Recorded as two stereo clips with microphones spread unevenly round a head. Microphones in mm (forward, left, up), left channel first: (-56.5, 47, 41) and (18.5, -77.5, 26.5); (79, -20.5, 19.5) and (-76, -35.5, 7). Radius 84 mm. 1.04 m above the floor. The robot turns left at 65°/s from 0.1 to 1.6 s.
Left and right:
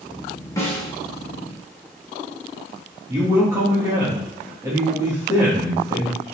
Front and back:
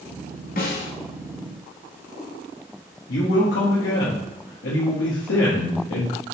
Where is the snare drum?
50° left, 0.9 m; by 0.9 s 25° left, 0.9 m.